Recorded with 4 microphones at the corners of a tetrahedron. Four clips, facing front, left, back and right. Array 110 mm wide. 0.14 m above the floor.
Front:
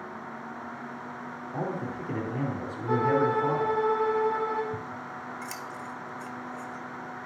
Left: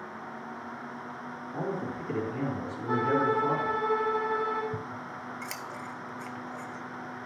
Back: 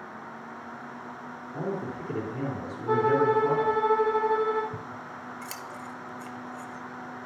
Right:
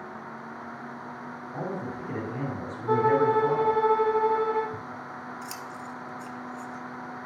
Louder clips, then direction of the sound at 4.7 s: Even, front 2 dB; 105° left.